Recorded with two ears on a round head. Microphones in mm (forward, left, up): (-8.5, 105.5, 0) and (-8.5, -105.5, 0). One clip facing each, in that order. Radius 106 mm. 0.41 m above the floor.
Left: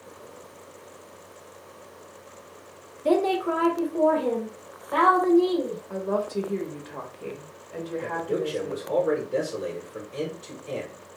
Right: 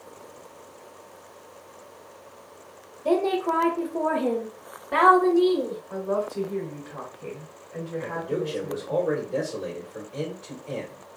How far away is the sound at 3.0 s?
About 0.9 m.